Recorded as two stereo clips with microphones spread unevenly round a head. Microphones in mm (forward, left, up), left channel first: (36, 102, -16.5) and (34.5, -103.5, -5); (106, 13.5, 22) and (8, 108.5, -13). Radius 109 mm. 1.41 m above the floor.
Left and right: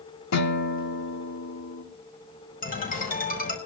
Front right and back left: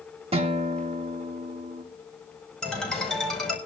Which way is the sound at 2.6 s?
40° left.